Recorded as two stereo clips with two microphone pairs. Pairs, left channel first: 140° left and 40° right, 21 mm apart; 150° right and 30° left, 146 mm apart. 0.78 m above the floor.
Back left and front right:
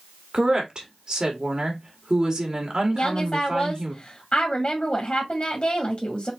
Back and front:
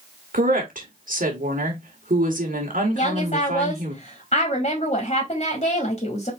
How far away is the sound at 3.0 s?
About 2 m.